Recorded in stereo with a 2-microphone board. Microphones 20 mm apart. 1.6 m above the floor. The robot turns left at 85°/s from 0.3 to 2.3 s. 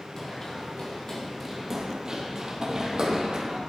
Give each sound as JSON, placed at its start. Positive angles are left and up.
{"t": 0.2, "sound": "running footsteps", "side_deg": 30, "distance_m": 2.0}